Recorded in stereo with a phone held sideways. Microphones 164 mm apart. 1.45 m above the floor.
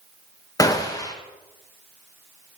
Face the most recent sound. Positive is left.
turn(degrees=20)  # may be behind; listen again after turning